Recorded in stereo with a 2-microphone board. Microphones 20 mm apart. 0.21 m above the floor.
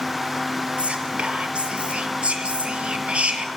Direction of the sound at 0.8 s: 65° right (ahead or behind).